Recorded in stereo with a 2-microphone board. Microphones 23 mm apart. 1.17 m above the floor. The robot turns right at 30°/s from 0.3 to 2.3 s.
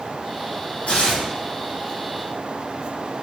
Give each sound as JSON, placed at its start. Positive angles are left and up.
{"t": 0.9, "sound": "tearing paper", "side_deg": 80, "distance_m": 2.5}